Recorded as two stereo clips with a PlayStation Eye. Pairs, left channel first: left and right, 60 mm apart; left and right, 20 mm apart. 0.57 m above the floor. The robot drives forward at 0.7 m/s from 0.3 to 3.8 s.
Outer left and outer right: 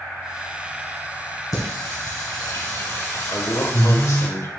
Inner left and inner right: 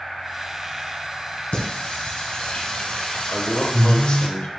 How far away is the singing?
About 2 m.